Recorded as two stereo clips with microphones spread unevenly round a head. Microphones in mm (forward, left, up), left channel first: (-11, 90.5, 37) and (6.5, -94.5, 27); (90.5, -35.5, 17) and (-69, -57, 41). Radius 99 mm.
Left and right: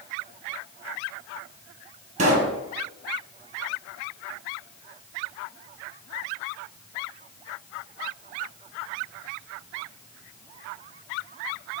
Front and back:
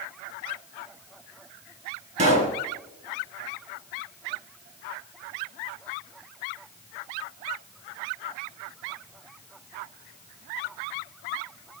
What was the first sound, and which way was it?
A pop, 135° right.